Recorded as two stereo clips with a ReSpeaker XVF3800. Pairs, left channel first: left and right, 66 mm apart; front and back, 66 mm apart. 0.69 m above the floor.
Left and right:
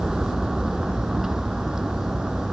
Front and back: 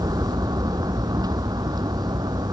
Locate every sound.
0.0 s a vehicle: 175° right